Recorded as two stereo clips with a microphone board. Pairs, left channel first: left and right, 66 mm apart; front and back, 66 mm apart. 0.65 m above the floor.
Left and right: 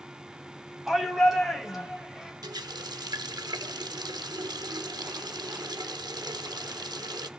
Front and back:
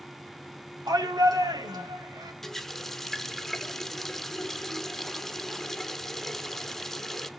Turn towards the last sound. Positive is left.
turn(degrees=-85)